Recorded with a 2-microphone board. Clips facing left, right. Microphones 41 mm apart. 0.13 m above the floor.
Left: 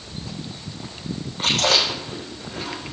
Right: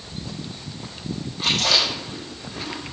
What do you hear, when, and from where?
1.4 s chewing: 50° left (ahead or behind), 6.5 m